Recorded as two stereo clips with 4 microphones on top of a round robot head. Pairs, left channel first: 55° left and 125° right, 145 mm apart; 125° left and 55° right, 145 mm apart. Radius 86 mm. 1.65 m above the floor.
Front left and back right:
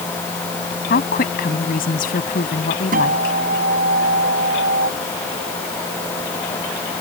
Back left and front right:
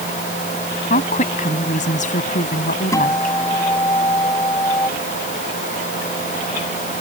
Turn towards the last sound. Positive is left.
turn(degrees=-160)